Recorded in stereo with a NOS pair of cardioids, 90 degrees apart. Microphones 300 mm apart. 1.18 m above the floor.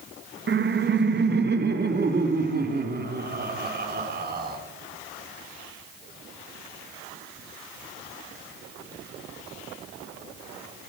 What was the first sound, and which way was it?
Laughter, 40° right.